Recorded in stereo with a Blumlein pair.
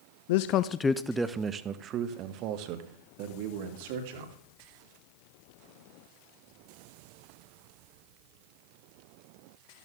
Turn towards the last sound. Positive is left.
turn(degrees=-50)